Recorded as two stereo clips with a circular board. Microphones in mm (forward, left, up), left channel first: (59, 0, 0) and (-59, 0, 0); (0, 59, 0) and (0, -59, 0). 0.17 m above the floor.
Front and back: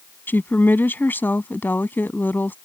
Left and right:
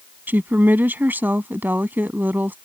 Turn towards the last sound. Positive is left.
turn(degrees=-45)